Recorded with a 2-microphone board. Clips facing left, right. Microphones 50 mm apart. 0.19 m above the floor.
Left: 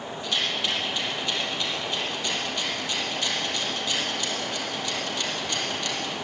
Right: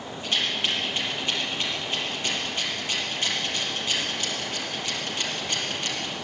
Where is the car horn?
I don't hear a car horn.